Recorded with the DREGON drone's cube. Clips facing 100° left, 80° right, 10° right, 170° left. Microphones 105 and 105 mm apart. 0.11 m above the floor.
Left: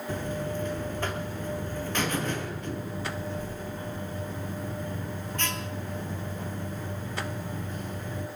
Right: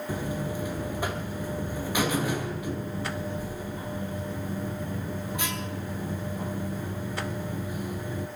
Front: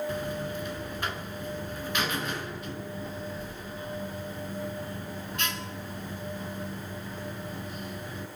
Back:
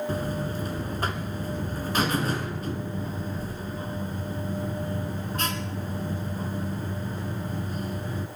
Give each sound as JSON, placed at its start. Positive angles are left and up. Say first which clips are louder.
{"t": 0.1, "sound": "a buzzer", "louder": "left 1 dB, back 3 dB", "azimuth_deg": -155, "distance_m": 1.7}